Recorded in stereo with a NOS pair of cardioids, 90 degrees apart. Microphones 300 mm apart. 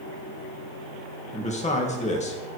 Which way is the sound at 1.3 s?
25° left.